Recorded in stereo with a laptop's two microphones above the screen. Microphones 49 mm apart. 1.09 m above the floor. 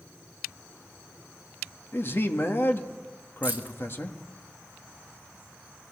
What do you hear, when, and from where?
1.9 s a man speaking: 50° left (ahead or behind), 1.8 m
3.4 s keys jangling: 35° right (ahead or behind), 1.5 m